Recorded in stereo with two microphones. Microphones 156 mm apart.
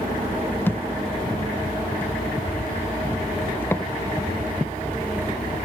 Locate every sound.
0.7 s a thud: 15° left (ahead or behind)